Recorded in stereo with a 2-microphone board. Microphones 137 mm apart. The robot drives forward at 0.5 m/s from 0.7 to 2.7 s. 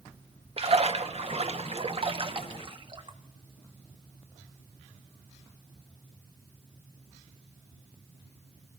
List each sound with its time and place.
0.6 s a splash: 50° right (ahead or behind), 1.0 m; by 3.2 s 40° right (ahead or behind), 1.3 m